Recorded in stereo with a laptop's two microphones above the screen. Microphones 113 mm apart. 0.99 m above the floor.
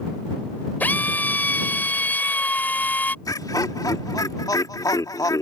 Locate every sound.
0.8 s a drill: 15° left (ahead or behind)
3.2 s laughter: 30° left (ahead or behind)